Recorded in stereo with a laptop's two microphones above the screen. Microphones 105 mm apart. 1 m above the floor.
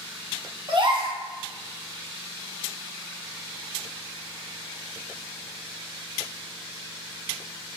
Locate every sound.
0.7 s a gasp: 50° right (ahead or behind), 0.7 m